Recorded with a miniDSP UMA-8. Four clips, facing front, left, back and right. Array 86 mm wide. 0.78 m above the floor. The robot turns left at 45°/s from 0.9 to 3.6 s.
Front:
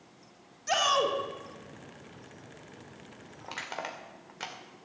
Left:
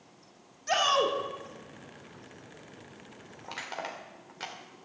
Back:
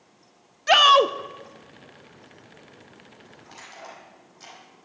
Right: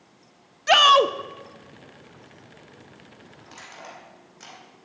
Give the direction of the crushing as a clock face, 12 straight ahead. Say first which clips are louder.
Left 5 dB, front 5 dB; 11 o'clock.